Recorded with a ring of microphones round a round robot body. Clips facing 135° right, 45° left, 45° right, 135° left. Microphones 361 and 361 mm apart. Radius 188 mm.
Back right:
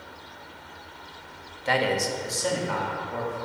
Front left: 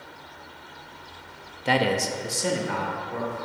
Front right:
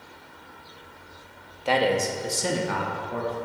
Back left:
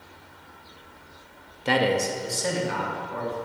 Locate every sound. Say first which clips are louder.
1.6 s a man speaking: front left 2 dB, even; 80° left, 0.7 m; by 3.4 s 30° right, 1.5 m